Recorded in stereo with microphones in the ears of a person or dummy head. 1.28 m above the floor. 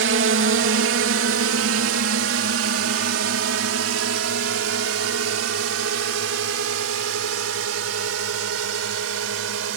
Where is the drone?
55° right (ahead or behind); by 9.8 s 75° right (ahead or behind).